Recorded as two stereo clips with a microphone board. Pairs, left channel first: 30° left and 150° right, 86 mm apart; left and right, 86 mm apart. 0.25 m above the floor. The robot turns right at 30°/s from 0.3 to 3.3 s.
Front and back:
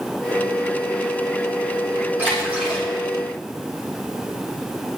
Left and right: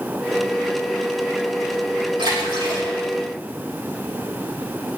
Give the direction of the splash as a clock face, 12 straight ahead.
3 o'clock.